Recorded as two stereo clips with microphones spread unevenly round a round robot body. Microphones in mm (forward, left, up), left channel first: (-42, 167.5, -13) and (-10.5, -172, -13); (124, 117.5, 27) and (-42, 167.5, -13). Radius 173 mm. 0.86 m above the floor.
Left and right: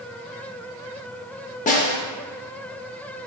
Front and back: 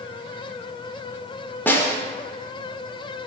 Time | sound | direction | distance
1.7 | a snare drum | 40° left | 0.6 m